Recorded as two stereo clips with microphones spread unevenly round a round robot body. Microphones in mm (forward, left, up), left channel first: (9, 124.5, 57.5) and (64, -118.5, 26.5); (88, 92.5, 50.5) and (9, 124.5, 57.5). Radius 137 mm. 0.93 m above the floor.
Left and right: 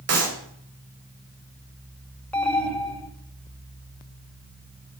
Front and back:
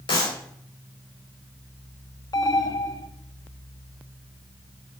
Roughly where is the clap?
Ahead right.